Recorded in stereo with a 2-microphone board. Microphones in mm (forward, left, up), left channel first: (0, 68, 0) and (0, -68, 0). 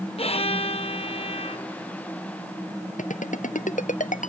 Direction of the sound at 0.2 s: 50° left (ahead or behind).